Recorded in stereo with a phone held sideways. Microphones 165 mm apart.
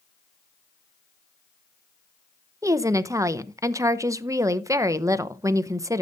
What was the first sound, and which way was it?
A woman speaking, 20° right (ahead or behind).